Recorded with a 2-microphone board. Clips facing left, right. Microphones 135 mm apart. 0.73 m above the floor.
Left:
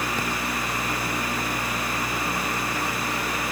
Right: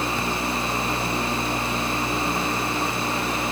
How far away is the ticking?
I don't hear ticking.